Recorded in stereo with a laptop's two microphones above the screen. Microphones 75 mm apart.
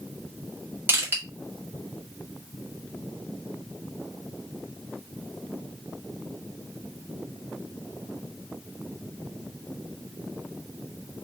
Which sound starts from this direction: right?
Crushing, at 0.9 s.